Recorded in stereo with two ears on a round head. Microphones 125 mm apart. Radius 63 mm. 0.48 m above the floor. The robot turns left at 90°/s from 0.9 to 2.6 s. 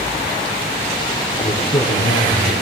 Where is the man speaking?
155° left, 3.5 m; by 2.5 s 45° left, 3.5 m.